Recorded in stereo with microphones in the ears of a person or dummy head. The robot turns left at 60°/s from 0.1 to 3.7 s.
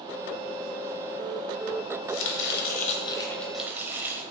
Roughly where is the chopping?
Left.